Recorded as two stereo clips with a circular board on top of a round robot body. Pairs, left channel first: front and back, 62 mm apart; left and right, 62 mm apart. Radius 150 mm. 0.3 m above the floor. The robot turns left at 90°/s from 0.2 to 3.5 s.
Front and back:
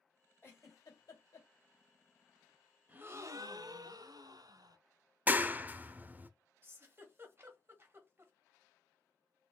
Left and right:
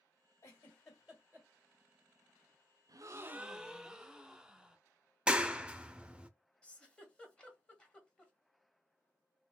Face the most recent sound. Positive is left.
turn(degrees=155)